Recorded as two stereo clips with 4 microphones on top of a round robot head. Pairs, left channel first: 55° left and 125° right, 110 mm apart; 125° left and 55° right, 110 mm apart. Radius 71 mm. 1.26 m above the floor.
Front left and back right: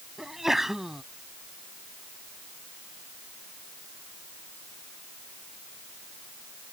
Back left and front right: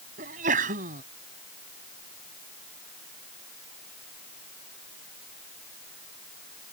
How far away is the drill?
I don't hear a drill.